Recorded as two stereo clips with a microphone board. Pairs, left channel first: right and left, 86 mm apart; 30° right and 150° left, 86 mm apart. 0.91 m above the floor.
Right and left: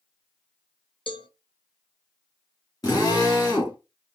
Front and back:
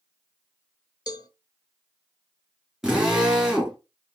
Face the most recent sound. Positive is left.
turn(degrees=-130)